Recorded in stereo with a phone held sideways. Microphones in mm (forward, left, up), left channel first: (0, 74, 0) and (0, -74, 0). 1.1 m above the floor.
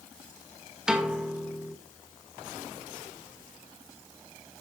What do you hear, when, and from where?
0.9 s a piano: 5° right (ahead or behind), 1.5 m